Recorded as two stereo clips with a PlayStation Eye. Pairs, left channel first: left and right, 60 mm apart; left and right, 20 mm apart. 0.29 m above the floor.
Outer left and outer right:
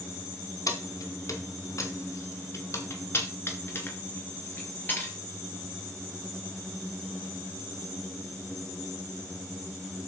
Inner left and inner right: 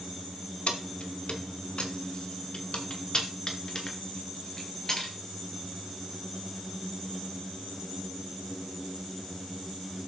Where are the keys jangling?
70° left (ahead or behind), 1.7 m; by 5.1 s 30° left (ahead or behind), 3.5 m.